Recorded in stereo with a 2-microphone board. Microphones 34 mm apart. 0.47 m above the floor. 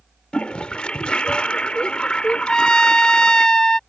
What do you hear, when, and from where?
0.3 s a toilet flushing: 30° left (ahead or behind)
2.5 s a trumpet: 25° left (ahead or behind)